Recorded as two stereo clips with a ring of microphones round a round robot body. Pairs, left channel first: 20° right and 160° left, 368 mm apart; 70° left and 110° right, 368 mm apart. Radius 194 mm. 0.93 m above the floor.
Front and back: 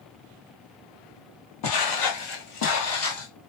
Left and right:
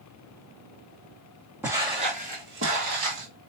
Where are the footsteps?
30° right, 1.4 m; by 3.3 s 75° right, 1.6 m.